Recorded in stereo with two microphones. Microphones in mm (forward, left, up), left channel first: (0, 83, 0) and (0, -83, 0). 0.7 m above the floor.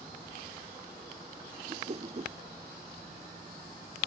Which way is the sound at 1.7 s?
40° right (ahead or behind).